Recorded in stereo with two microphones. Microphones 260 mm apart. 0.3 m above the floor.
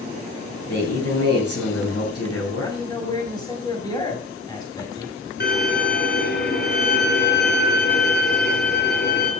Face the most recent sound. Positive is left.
turn(degrees=40)  # may be behind; listen again after turning